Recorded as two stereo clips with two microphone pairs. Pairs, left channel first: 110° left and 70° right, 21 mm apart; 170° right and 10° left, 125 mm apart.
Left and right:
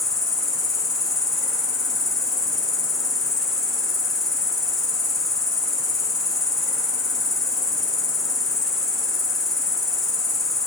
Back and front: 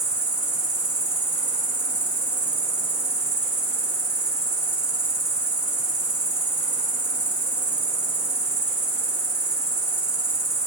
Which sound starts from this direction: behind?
An insect, at 0.0 s.